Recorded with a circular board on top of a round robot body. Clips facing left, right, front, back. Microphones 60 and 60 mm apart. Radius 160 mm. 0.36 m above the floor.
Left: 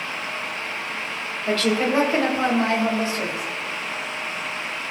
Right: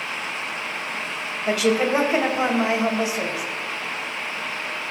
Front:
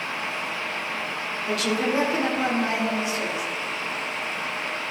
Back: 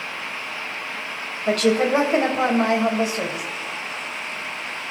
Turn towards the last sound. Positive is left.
turn(degrees=-165)